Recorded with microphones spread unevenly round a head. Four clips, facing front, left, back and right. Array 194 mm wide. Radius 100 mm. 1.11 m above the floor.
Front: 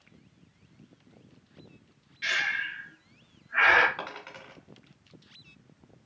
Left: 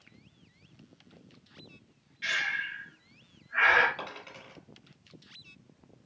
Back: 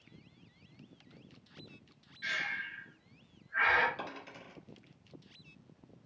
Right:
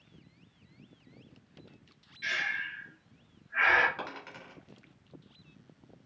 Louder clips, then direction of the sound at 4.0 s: Right 1 dB, front 4 dB; 5° right.